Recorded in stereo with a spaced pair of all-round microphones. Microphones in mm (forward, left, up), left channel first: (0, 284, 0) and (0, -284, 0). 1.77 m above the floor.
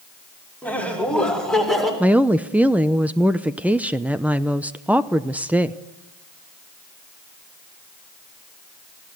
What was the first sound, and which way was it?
Laughter, 5° left (ahead or behind).